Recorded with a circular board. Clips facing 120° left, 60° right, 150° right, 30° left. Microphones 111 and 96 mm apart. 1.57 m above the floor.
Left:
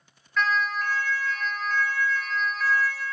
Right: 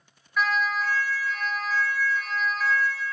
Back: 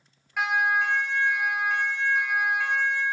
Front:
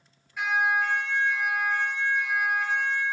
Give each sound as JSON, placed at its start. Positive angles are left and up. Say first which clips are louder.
{"t": 0.4, "sound": "a siren", "louder": "even, back 1 dB", "azimuth_deg": -140, "distance_m": 5.0}